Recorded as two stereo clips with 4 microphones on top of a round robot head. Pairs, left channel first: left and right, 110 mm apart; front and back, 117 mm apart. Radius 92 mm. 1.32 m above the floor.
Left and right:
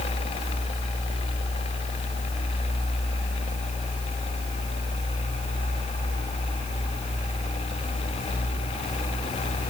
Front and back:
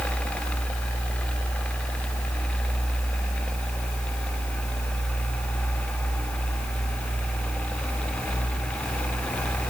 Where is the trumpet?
No trumpet in this recording.